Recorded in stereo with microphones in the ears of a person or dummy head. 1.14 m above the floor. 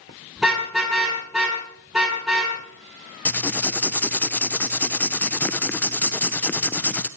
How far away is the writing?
About 0.5 m.